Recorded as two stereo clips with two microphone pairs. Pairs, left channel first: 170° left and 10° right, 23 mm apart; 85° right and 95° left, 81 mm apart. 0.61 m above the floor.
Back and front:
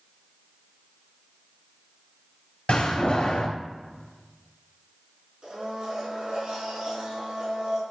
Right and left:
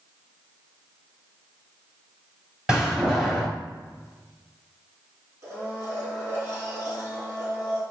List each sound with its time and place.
2.7 s a door slam: straight behind, 2.5 m
5.4 s a blender: 40° left, 3 m